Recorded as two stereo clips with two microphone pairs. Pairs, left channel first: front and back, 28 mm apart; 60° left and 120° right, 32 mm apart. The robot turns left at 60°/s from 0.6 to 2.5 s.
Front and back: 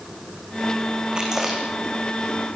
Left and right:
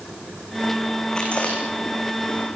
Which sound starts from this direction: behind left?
Chewing, at 1.1 s.